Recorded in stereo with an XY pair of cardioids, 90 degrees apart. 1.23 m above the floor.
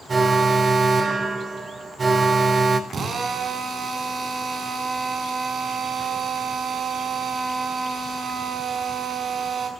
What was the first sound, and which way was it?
An alarm, 45° right.